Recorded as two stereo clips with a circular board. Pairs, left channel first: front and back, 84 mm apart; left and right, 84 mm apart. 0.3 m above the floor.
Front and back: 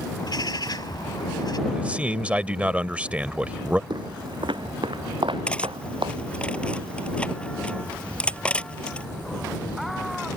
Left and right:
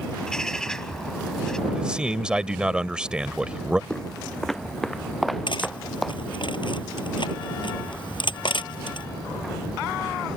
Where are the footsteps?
170° left; by 6.2 s straight behind.